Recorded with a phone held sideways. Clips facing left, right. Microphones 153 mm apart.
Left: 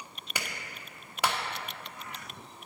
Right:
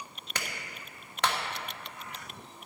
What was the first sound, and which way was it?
A clap, 10° left (ahead or behind).